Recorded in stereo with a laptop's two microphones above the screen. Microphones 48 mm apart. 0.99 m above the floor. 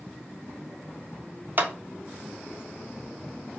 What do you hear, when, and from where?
1.6 s a clap: 45° right (ahead or behind), 0.6 m